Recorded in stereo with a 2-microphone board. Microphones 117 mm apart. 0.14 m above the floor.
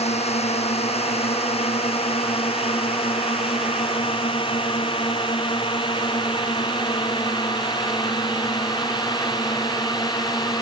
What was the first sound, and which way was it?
A drone, 65° left (ahead or behind).